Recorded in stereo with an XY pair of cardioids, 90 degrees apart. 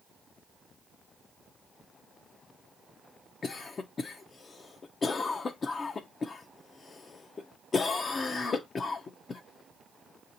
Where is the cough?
45° left, 0.5 m.